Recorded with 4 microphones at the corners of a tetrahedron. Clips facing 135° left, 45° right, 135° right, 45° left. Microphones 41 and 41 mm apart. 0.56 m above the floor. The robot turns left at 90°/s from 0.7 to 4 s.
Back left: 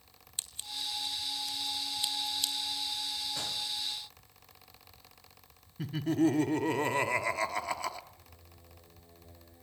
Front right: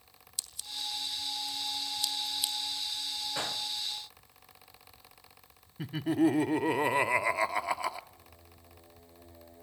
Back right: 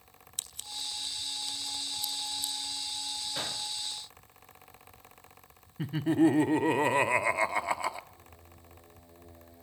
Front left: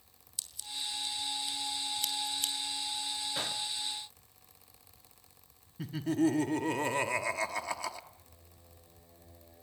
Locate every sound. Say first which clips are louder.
0.4 s scissors: even, even; 170° right, 2.5 m; by 3.2 s 40° right, 2.5 m
3.4 s a gunshot: front right 2 dB, even; 35° right, 0.8 m; by 3.7 s 65° right, 0.8 m
5.8 s laughter: front right 1 dB, back right 5 dB; 105° right, 1.0 m
8.1 s singing: front right 1 dB, back right 6 dB; 80° right, 9.5 m